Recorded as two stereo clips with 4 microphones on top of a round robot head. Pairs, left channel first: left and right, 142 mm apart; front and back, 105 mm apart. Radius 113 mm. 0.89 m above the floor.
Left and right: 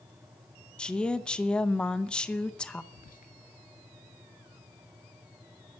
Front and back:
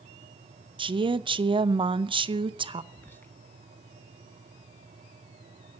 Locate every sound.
0.8 s a woman speaking: 170° left, 0.7 m
2.9 s whispering: 70° left, 1.0 m